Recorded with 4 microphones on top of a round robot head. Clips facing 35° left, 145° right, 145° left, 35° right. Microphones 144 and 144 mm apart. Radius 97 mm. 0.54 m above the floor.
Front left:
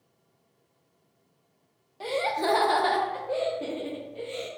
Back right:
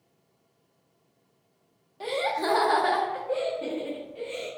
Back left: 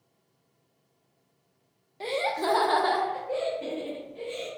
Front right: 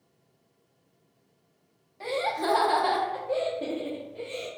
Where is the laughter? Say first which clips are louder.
Front left 1 dB, even; 125° left, 0.6 m; by 4.5 s 5° right, 1.3 m.